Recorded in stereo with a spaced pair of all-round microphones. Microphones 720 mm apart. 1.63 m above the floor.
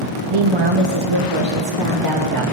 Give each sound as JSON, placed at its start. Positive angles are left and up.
{"t": 0.3, "sound": "a woman speaking", "side_deg": -45, "distance_m": 0.9}